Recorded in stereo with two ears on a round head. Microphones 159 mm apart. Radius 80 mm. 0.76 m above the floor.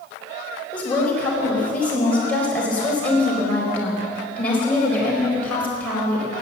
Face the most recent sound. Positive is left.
turn(degrees=10)  # may be behind; listen again after turning